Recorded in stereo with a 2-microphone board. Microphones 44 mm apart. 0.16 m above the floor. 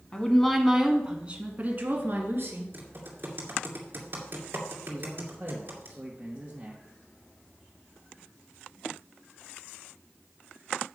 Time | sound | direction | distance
0.1 | a woman speaking | 20° left (ahead or behind) | 1.3 m
2.7 | typing on a keyboard | 45° right (ahead or behind) | 2.5 m
4.9 | a man speaking | 30° right (ahead or behind) | 2 m